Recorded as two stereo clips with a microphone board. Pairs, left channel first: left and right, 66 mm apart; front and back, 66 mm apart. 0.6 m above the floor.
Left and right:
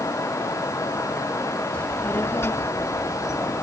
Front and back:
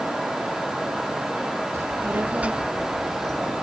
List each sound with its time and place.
1.7 s a child speaking: 155° left; by 3.6 s 75° left